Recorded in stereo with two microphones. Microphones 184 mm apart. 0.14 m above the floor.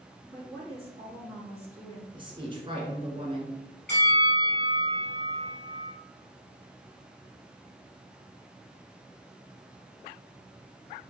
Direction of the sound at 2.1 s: 30° right (ahead or behind).